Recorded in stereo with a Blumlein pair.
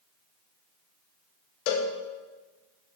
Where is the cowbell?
40° left, 0.7 m.